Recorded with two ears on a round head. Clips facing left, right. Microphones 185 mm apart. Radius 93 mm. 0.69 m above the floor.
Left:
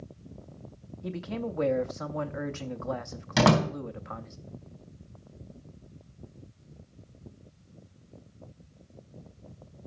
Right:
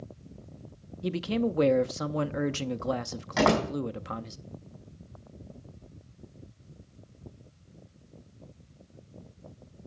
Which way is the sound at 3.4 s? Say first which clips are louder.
Left 1 dB; 45° left (ahead or behind).